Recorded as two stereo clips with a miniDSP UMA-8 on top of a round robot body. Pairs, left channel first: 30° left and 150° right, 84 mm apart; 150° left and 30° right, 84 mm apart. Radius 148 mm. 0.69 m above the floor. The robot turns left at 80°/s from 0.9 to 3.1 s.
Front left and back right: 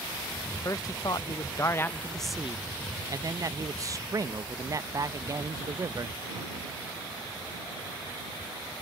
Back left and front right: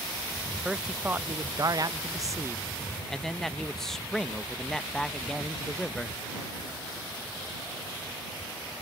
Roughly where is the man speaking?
Ahead left.